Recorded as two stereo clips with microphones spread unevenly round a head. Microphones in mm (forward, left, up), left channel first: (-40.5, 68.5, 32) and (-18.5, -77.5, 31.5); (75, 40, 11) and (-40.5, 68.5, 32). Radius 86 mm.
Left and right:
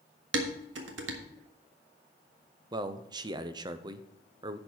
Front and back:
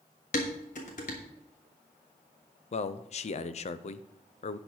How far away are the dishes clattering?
About 1.2 m.